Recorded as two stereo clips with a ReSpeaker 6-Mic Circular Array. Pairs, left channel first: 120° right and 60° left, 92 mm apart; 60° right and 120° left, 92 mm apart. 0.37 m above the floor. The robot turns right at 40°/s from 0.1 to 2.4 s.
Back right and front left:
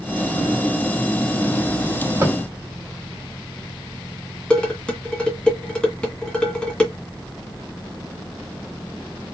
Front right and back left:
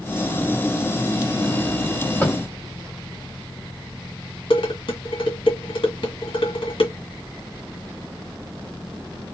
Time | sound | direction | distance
2.2 | tapping | 5° left | 1.9 m
4.5 | dishes clattering | 40° right | 2.0 m